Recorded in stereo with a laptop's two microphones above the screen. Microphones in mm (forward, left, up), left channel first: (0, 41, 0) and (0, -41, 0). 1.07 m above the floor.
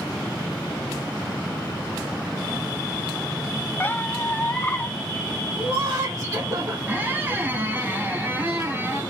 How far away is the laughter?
About 1.8 m.